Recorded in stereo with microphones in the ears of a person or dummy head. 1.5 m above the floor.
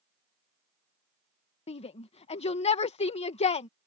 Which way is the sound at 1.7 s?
30° left (ahead or behind).